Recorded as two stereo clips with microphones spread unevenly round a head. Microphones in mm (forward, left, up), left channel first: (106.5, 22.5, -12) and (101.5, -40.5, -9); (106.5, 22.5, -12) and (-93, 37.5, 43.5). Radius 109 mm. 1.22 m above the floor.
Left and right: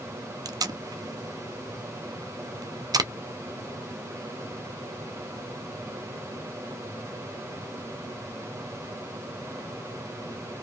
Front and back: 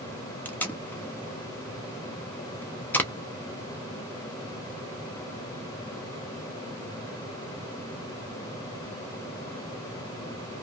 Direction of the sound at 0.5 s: 80° right.